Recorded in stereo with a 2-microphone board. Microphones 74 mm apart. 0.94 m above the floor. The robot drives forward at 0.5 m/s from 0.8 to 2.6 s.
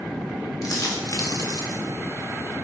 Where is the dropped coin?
60° left (ahead or behind), 1.9 m; by 1.8 s 75° left (ahead or behind), 1.7 m.